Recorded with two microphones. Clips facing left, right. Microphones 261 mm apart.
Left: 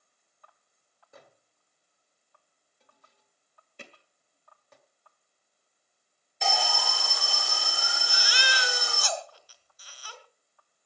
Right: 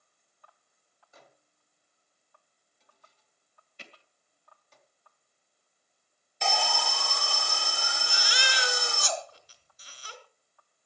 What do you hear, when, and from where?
1.1 s a microwave: 65° left (ahead or behind), 1.9 m
3.8 s hammering: 55° left (ahead or behind), 1.7 m
6.4 s an alarm: centre (ahead or behind), 0.7 m
8.1 s a baby crying: 25° right (ahead or behind), 2.5 m